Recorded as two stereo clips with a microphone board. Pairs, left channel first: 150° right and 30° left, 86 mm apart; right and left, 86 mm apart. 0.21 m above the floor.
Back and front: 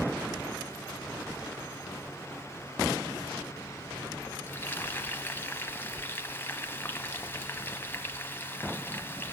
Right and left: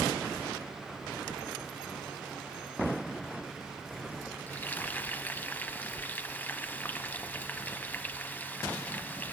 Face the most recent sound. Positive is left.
turn(degrees=-130)